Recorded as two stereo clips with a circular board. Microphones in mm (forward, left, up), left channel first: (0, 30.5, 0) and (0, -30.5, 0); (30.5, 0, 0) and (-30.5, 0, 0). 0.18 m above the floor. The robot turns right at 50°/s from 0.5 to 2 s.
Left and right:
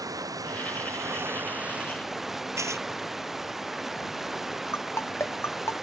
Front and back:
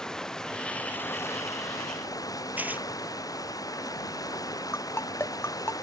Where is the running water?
80° right; by 5.8 s 5° right.